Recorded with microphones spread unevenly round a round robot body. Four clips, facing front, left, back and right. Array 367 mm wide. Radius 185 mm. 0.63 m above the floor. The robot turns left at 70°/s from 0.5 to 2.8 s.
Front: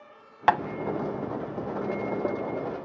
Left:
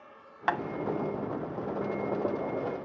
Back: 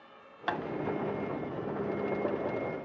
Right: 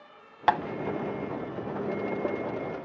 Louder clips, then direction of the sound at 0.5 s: Right 6 dB, front 12 dB; 35° right.